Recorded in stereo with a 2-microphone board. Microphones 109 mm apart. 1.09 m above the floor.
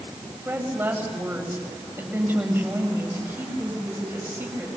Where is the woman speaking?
15° right (ahead or behind), 7 m.